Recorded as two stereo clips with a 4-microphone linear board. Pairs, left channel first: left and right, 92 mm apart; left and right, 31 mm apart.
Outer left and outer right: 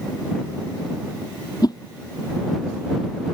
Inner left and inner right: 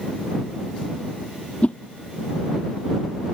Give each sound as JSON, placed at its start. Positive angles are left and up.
{"t": 1.6, "sound": "a whoosh", "side_deg": 50}